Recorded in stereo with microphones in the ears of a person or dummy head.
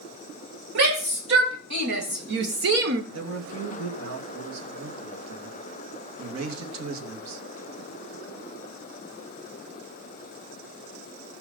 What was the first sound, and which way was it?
A shout, 60° right (ahead or behind).